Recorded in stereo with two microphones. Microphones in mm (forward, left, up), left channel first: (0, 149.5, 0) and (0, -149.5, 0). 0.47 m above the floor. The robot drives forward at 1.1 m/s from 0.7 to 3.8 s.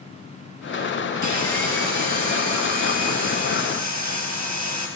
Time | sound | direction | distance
1.2 | sawing | 75° right (ahead or behind) | 4 m